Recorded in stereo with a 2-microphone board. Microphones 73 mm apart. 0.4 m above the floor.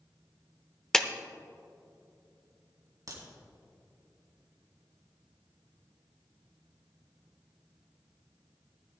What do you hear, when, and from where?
0.9 s a clap: 10° left (ahead or behind), 0.6 m
3.1 s a crack: 55° right (ahead or behind), 3 m